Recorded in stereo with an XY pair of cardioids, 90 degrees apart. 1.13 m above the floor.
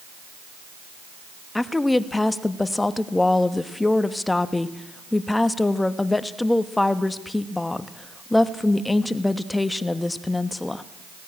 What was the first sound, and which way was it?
A woman speaking, 20° left.